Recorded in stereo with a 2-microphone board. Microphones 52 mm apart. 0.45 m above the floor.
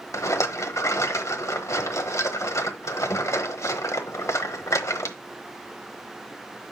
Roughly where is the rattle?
Left.